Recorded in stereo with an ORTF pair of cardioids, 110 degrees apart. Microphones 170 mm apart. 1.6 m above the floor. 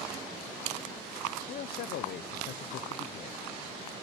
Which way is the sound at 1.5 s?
60° left.